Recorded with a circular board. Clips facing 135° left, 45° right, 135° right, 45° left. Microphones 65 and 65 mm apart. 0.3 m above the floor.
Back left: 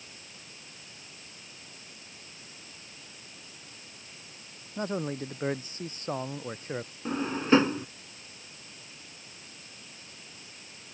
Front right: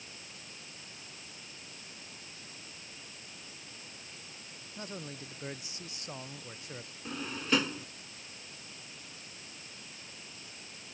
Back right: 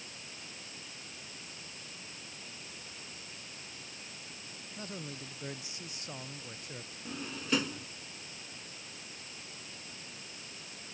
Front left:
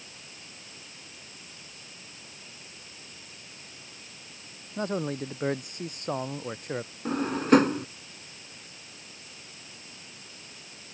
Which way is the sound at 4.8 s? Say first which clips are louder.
Back left 12 dB, front left 14 dB; 85° left.